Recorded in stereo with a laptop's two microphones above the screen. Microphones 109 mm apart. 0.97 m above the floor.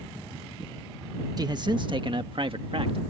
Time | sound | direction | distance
1.4 | a man speaking | 40° right (ahead or behind) | ?